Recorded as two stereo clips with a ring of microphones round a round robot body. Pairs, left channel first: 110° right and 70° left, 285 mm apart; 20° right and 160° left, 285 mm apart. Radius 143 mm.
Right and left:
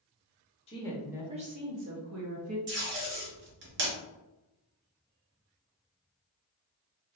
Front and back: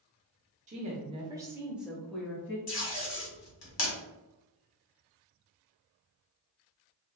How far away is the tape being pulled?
About 1.6 m.